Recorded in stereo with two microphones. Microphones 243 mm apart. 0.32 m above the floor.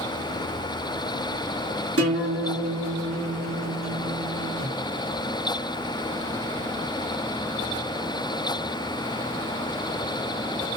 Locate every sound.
2.0 s a guitar: 70° right (ahead or behind), 2 m